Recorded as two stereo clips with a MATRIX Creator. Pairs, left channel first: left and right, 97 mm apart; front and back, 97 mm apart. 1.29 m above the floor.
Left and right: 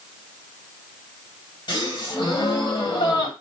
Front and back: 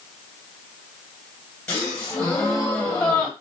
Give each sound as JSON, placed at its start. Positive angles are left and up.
{"t": 1.7, "sound": "a gasp", "azimuth_deg": 75, "distance_m": 1.9}